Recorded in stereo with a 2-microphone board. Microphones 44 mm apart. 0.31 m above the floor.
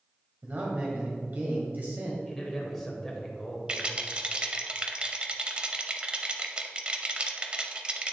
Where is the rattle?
25° right (ahead or behind), 0.7 m.